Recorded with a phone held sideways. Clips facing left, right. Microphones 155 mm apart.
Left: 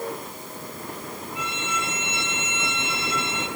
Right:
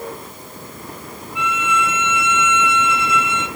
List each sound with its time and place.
1.4 s a violin: 40° left (ahead or behind), 2.5 m